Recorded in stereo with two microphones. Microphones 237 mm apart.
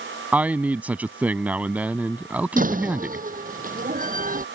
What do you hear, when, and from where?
0.3 s a man speaking: 5° right (ahead or behind)
2.6 s a door slam: 35° right (ahead or behind)